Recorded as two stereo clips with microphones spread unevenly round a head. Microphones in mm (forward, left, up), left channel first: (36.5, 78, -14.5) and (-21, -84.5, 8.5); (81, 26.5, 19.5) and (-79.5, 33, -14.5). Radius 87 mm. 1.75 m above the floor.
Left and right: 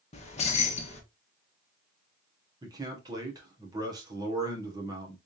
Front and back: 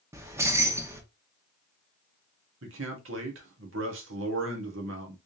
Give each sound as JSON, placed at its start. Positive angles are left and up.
{"t": 0.1, "sound": "keys jangling", "azimuth_deg": 100, "distance_m": 1.0}
{"t": 2.6, "sound": "a man speaking", "azimuth_deg": 180, "distance_m": 1.5}